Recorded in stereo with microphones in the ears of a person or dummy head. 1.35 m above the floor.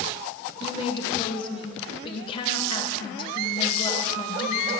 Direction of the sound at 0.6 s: 30° left (ahead or behind).